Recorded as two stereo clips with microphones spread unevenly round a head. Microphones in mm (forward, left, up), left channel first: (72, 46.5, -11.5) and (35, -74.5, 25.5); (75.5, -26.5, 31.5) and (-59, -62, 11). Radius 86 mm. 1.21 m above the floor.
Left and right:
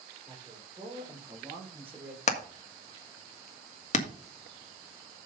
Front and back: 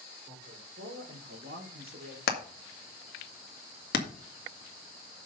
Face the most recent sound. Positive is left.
turn(degrees=50)